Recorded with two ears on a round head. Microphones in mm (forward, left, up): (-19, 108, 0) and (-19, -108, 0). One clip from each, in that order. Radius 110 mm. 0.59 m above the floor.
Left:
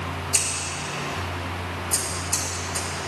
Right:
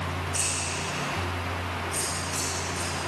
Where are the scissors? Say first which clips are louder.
Left 4 dB; 80° left, 3.5 m.